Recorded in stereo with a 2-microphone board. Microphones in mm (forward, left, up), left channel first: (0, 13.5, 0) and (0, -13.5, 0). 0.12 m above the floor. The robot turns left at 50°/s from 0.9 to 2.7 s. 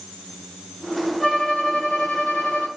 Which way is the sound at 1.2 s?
170° left.